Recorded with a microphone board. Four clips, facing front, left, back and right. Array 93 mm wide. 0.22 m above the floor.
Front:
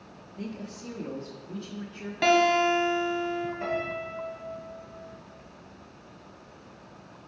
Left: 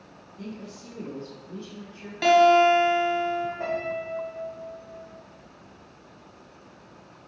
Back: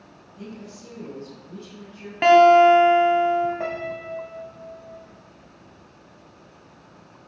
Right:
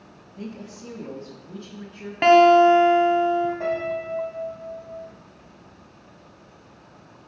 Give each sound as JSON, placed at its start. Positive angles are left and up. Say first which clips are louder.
{"t": 0.4, "sound": "a woman speaking", "louder": "right 2 dB, front 1 dB", "azimuth_deg": -75, "distance_m": 1.8}
{"t": 2.2, "sound": "a guitar", "louder": "right 4 dB, back 10 dB", "azimuth_deg": -125, "distance_m": 1.2}
{"t": 3.6, "sound": "a piano", "louder": "right 3 dB, back 2 dB", "azimuth_deg": -175, "distance_m": 2.5}